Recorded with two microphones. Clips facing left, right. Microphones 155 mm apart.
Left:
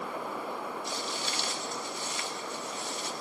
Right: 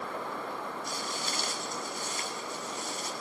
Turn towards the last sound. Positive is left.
turn(degrees=-40)  # may be behind; listen again after turning